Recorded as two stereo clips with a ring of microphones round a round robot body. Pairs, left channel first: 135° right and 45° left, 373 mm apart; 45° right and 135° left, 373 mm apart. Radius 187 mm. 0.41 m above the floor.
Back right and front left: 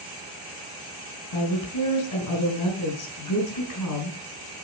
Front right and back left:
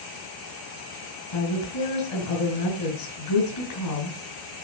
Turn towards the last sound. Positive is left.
turn(degrees=-85)